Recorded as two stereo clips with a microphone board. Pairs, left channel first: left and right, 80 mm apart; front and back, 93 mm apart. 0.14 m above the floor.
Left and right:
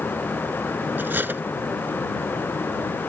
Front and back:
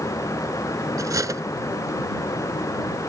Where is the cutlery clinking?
145° right.